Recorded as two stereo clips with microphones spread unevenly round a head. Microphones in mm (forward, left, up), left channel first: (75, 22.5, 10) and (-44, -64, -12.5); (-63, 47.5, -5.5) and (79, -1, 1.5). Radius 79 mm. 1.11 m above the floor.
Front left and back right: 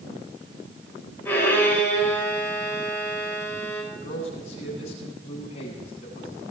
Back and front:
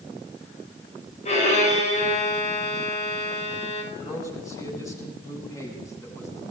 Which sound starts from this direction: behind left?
A violin, at 1.2 s.